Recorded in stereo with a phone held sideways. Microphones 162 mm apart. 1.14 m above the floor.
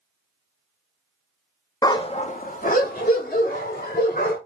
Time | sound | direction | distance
1.8 | a dog barking | 20° left (ahead or behind) | 0.5 m